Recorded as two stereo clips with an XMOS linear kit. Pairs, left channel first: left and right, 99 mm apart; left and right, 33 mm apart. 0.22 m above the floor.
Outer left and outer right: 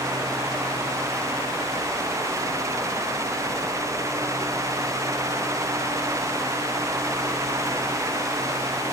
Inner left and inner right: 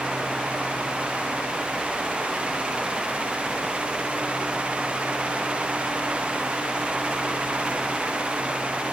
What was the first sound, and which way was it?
Only background noise.